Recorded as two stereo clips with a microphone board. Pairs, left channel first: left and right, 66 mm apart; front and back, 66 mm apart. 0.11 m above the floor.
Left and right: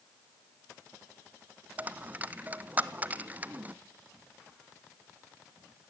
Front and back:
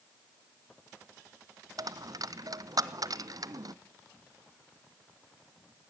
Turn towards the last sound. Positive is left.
turn(degrees=-155)